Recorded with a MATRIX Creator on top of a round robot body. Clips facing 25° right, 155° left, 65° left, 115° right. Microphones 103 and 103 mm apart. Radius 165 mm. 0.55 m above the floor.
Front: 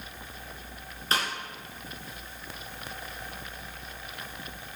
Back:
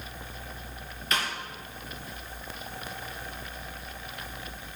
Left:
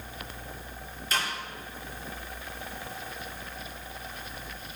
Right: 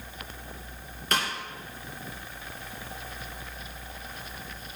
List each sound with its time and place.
1.1 s a snare drum: 80° right, 2.5 m